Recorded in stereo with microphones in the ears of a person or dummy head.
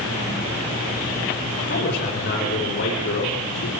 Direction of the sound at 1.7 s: 60° left (ahead or behind).